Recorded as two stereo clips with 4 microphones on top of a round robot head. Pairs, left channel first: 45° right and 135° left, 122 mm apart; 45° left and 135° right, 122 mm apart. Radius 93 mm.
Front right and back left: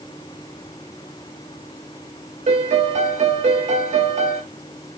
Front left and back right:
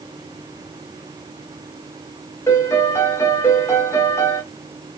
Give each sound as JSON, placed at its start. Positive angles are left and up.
{"t": 2.5, "sound": "a piano", "azimuth_deg": 115, "distance_m": 0.7}